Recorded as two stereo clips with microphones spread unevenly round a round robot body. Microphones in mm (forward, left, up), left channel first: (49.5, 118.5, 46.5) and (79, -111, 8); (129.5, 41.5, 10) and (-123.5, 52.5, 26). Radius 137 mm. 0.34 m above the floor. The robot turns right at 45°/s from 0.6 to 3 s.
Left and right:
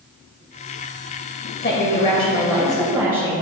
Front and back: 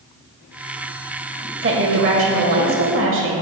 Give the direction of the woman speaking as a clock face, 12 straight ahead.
7 o'clock.